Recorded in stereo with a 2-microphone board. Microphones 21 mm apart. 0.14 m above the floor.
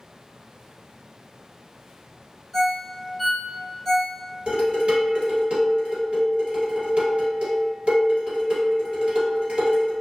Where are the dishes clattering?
55° right (ahead or behind), 1.7 m.